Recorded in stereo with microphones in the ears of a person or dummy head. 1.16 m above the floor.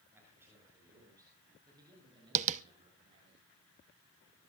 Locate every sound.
0.1 s a man speaking: 10° right (ahead or behind), 7.5 m; by 3.4 s 30° right (ahead or behind), 7 m
2.4 s tapping: 35° right (ahead or behind), 0.6 m